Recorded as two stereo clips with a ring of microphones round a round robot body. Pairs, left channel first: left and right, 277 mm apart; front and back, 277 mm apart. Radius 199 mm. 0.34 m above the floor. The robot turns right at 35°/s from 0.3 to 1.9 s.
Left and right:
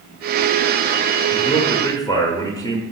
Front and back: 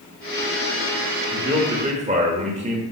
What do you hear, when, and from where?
1.3 s a man speaking: 130° left, 1.0 m; by 2.8 s 150° left, 1.0 m